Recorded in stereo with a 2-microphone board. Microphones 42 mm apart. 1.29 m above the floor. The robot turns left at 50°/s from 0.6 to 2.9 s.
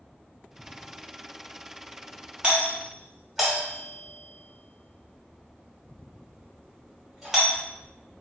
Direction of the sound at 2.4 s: 25° right (ahead or behind).